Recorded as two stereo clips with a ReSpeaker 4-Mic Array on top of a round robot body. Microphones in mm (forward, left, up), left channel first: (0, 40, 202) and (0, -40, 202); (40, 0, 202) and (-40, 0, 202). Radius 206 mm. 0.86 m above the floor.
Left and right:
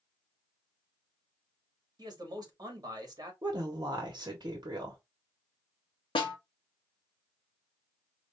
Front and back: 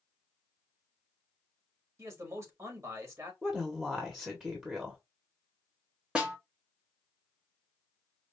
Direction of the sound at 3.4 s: 105° right.